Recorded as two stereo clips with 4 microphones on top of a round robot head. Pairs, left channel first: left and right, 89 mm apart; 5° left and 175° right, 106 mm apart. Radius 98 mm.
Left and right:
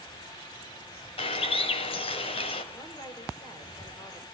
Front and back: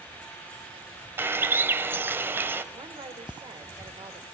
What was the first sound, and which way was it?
A bird, 115° left.